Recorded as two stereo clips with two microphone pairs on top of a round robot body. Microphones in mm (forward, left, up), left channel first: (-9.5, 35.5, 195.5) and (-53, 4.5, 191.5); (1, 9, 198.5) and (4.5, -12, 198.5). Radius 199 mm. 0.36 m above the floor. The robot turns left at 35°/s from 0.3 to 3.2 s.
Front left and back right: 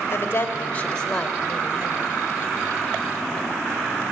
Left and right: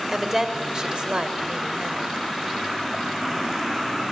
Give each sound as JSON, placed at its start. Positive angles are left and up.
{"t": 0.1, "sound": "a woman speaking", "azimuth_deg": -15, "distance_m": 2.5}